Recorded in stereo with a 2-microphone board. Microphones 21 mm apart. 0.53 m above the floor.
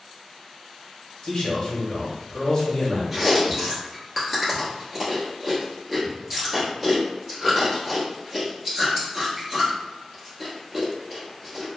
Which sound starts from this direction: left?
A man speaking, at 1.2 s.